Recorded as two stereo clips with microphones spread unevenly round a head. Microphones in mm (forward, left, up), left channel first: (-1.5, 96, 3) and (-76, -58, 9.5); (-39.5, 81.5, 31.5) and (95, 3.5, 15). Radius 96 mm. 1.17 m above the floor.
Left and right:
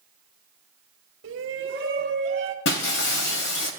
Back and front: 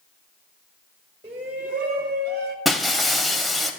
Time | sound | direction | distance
1.2 | a shout | 90° right | 1.9 m
2.6 | breaking glass | 60° left | 2.5 m